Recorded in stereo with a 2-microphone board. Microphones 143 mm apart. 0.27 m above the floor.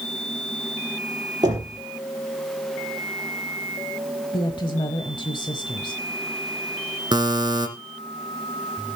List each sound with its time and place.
1.4 s knocking: 30° right (ahead or behind), 4.5 m
4.3 s a woman speaking: 35° left (ahead or behind), 1.1 m
7.1 s a buzzer: 30° right (ahead or behind), 1.5 m